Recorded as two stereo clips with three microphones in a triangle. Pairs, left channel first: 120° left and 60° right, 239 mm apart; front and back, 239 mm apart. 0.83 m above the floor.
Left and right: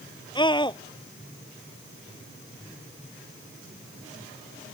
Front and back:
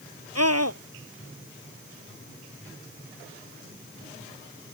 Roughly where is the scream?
Behind.